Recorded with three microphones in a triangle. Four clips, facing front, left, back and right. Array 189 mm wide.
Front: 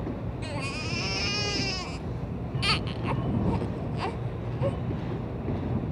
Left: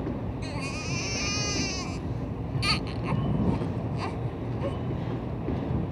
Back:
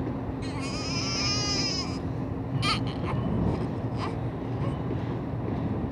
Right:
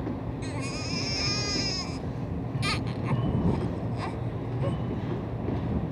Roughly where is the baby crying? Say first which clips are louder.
Even, back 2 dB; ahead.